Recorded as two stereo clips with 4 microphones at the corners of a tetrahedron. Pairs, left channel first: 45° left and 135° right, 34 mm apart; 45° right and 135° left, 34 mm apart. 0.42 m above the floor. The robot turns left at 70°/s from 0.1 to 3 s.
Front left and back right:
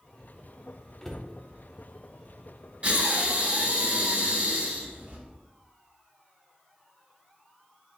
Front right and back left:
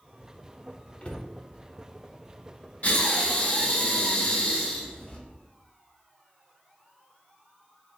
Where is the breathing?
85° right, 1.1 m; by 5.2 s 95° right, 1.1 m.